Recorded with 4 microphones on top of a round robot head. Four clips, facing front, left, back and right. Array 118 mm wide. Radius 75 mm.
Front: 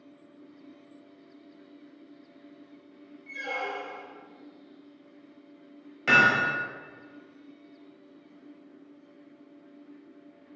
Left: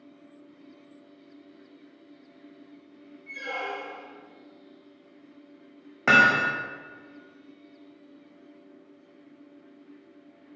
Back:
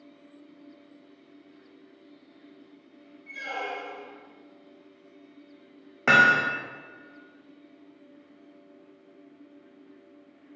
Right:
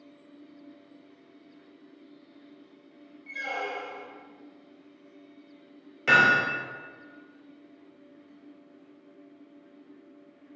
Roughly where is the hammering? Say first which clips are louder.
Left 1 dB, back 2 dB; behind left.